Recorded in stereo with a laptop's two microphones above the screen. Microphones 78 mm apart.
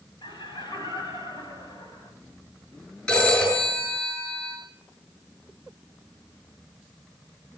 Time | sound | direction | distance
0.2 | laughter | 75° left (ahead or behind) | 6 m
3.1 | a phone ringing | 20° left (ahead or behind) | 9 m